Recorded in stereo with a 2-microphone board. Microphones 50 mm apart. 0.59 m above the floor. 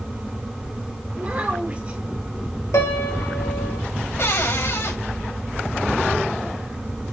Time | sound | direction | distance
1.2 | a child speaking | 25° right (ahead or behind) | 3 m
2.7 | a piano | 70° left (ahead or behind) | 1.7 m
4.2 | a cupboard door | 65° left (ahead or behind) | 4 m